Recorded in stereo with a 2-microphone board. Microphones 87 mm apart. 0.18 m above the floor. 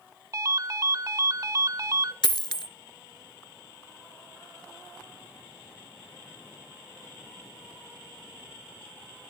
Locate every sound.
0.3 s a ringtone: 40° right (ahead or behind), 0.6 m
2.2 s a dropped coin: 60° left (ahead or behind), 0.6 m